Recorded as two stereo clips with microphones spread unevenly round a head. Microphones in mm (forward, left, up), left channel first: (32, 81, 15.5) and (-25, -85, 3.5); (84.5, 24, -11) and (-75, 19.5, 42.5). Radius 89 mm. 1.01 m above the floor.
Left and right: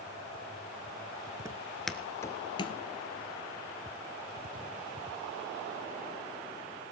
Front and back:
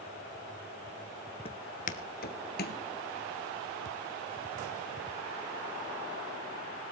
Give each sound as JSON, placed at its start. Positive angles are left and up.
{"t": 1.4, "sound": "footsteps", "azimuth_deg": -55, "distance_m": 1.0}